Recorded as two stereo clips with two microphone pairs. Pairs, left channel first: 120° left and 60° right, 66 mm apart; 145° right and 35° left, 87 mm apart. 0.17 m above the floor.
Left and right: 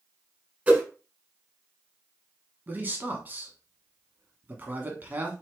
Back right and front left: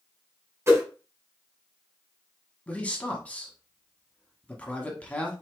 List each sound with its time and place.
0.7 s a whoosh: straight ahead, 1.4 m
2.7 s a man speaking: 85° right, 1.2 m